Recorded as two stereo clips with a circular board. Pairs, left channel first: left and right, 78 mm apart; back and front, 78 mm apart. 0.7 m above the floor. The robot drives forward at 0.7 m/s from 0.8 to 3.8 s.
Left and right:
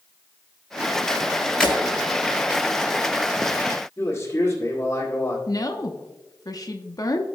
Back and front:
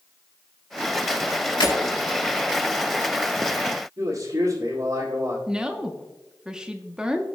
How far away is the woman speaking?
About 0.9 m.